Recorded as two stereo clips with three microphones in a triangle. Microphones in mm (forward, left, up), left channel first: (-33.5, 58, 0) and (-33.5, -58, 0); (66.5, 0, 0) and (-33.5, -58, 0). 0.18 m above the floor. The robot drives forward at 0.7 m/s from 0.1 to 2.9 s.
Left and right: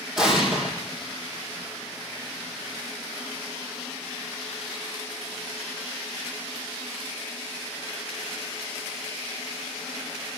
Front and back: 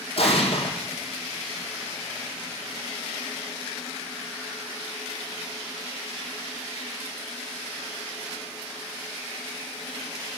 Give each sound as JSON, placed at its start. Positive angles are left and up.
{"t": 0.2, "sound": "an explosion", "azimuth_deg": -5, "distance_m": 1.7}